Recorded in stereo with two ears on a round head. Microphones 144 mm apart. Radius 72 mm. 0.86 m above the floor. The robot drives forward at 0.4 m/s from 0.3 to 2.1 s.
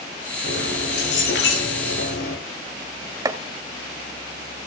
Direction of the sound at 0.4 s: 85° left.